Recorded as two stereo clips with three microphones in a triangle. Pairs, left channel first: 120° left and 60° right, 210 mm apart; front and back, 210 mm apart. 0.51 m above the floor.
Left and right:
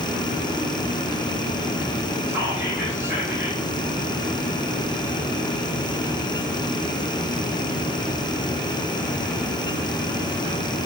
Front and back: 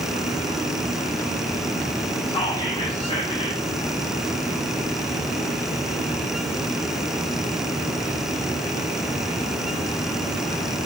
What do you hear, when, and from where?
2.3 s whispering: straight ahead, 0.7 m